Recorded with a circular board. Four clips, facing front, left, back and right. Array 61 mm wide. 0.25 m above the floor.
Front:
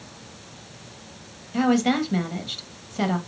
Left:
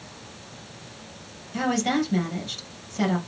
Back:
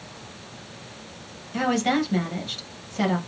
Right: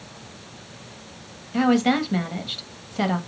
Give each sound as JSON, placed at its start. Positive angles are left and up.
{"t": 1.5, "sound": "a woman speaking", "azimuth_deg": -85, "distance_m": 0.9}